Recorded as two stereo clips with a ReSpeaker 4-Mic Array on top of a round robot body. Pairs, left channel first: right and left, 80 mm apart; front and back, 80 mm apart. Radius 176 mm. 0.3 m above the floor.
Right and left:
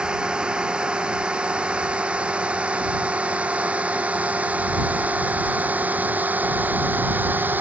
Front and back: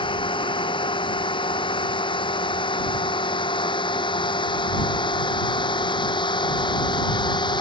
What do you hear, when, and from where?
0.0 s a drone: 10° left; by 7.6 s 25° left